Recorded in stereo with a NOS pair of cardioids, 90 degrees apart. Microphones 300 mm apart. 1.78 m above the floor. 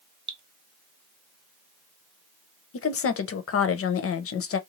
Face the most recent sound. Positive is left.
turn(degrees=50)